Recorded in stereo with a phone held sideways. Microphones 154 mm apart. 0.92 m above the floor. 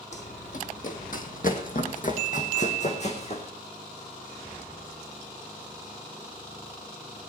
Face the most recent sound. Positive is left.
turn(degrees=45)  # may be behind; listen again after turning